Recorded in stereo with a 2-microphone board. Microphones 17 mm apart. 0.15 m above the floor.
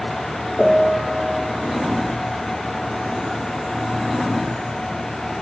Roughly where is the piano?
Centre.